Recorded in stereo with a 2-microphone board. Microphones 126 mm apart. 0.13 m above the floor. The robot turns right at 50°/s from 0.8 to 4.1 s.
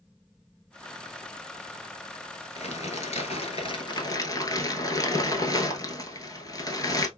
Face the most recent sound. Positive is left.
turn(degrees=145)